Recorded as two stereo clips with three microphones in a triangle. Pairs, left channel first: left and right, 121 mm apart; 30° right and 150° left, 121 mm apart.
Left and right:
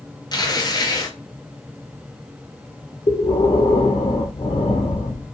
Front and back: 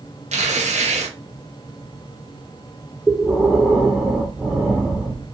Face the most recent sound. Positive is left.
turn(degrees=70)